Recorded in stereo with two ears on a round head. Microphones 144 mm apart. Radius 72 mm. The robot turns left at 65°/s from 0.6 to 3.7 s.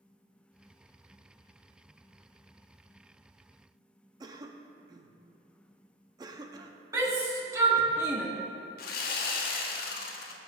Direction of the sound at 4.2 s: 25° right (ahead or behind).